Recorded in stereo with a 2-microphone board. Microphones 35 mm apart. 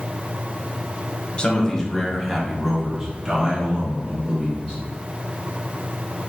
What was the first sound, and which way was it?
A man speaking, 30° left (ahead or behind).